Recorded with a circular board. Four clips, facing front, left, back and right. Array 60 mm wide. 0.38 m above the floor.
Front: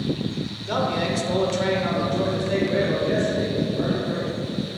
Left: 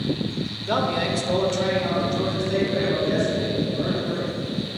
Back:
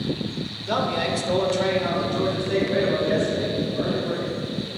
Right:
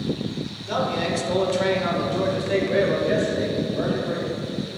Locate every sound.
0.7 s a man speaking: 110° left, 0.8 m; by 4.3 s 90° right, 2.0 m